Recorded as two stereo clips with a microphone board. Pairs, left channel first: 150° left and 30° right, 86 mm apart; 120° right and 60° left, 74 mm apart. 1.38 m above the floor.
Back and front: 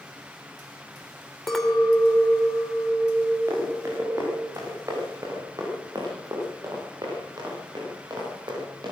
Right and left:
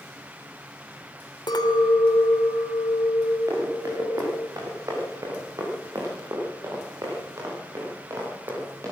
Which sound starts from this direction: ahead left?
Running footsteps, at 3.5 s.